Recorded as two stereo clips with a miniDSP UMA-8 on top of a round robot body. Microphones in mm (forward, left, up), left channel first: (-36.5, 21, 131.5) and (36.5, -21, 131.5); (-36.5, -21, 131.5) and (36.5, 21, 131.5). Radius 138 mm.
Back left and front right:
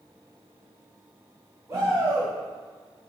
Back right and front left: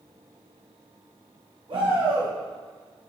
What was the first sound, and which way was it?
A shout, 25° left.